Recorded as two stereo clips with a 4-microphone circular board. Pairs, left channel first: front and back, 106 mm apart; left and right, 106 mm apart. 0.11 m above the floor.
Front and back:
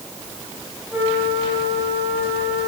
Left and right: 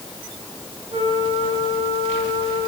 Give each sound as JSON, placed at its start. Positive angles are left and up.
{"t": 0.9, "sound": "a flute", "azimuth_deg": -110, "distance_m": 7.0}